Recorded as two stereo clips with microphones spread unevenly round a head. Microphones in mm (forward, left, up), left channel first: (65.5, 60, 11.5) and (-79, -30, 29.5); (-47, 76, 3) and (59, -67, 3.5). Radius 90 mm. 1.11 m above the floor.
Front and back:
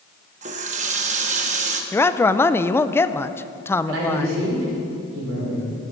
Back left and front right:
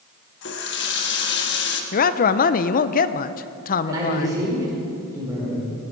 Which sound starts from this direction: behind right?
A man speaking, at 3.9 s.